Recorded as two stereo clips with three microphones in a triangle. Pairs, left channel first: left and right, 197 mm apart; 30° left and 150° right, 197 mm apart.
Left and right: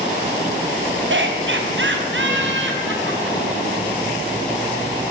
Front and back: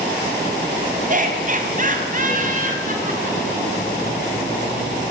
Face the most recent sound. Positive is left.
turn(degrees=-105)